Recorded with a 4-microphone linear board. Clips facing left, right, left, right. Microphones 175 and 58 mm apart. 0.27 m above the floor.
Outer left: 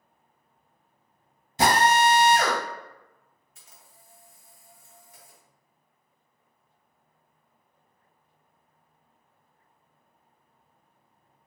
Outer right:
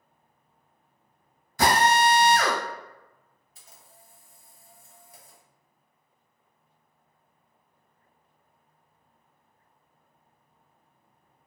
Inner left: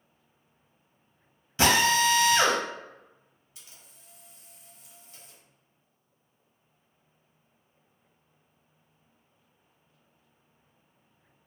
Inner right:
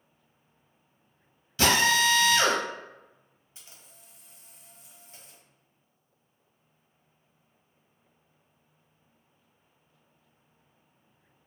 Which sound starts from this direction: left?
A drill, at 1.6 s.